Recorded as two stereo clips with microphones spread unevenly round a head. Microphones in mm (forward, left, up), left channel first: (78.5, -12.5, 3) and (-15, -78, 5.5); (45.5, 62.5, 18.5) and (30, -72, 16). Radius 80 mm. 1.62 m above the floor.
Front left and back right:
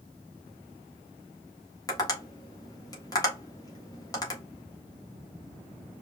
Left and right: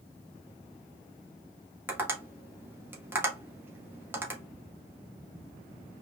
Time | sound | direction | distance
1.9 | tapping | 25° right | 1.9 m